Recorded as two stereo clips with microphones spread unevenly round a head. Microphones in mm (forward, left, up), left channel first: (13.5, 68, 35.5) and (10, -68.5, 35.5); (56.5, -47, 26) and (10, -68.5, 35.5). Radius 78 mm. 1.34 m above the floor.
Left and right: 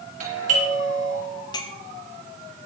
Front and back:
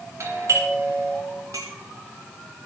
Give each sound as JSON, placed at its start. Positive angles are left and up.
{"t": 0.2, "sound": "a doorbell", "azimuth_deg": -125, "distance_m": 4.0}
{"t": 1.5, "sound": "a clink", "azimuth_deg": 150, "distance_m": 1.1}